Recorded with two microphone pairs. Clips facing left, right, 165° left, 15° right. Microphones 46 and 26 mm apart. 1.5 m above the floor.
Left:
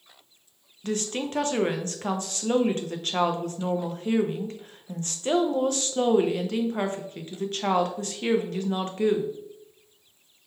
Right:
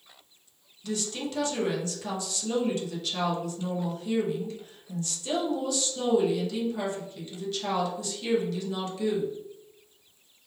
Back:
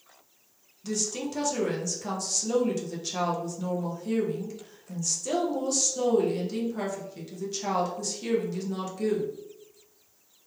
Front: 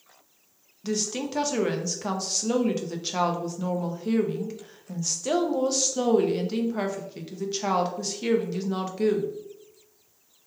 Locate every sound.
0.8 s a woman speaking: 45° left, 0.5 m